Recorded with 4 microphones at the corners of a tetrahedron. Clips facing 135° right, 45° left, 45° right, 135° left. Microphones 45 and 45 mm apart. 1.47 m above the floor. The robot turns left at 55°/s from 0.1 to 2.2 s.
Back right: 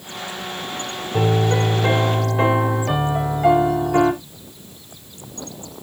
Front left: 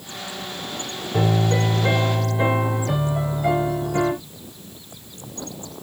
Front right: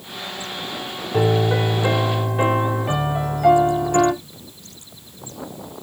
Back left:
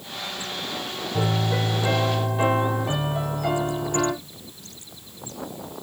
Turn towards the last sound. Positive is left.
turn(degrees=-105)